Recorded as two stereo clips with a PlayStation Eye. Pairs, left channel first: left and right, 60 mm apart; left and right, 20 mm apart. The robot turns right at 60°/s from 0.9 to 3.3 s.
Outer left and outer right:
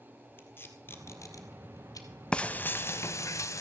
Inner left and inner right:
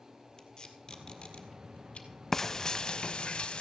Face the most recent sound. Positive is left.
turn(degrees=55)  # may be behind; listen again after turning